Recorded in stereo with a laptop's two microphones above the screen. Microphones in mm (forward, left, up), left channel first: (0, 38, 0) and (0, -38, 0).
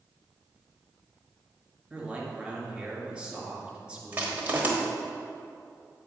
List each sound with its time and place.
1.9 s a man speaking: 10° right (ahead or behind), 2.5 m
4.1 s crushing: 25° right (ahead or behind), 1.0 m